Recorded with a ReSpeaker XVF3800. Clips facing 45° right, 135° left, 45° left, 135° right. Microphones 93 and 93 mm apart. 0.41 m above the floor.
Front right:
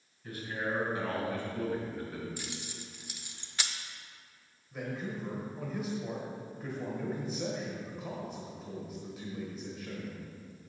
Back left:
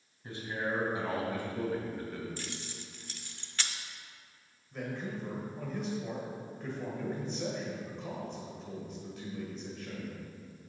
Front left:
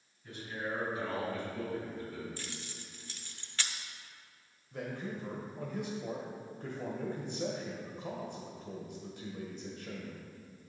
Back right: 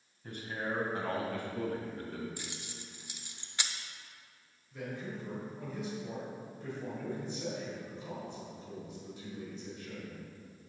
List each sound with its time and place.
0.2 s a man speaking: 165° right, 2.5 m; by 2.3 s 130° right, 2.5 m
2.4 s keys jangling: 95° right, 0.5 m
4.7 s a man speaking: 40° left, 1.3 m